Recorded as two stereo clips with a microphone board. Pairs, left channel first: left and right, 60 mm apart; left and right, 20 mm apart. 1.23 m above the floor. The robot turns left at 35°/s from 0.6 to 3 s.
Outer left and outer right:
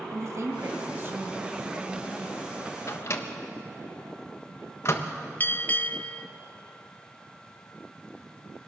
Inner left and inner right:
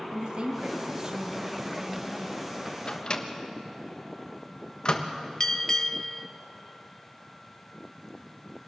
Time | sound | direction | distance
0.1 | a woman speaking | 120° right | 2.5 m
2.9 | a microwave | 50° left (ahead or behind) | 1.4 m
5.4 | a bell | 30° left (ahead or behind) | 0.6 m